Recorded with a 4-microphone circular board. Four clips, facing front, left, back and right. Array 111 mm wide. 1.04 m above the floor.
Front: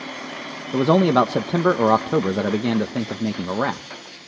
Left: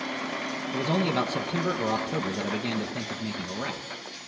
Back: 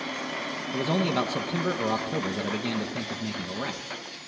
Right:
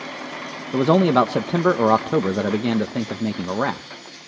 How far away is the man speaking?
About 0.8 m.